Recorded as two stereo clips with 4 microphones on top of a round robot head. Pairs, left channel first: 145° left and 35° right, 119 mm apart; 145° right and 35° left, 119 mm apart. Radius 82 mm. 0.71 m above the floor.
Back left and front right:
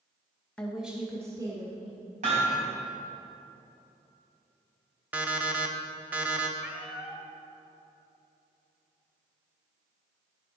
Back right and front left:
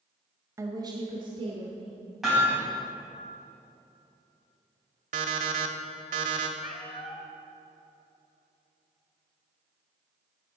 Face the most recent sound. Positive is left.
turn(degrees=-115)